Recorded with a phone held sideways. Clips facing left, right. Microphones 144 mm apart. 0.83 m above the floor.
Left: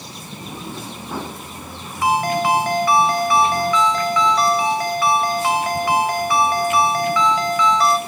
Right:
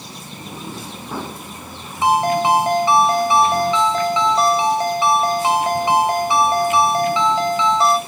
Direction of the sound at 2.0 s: 25° right (ahead or behind).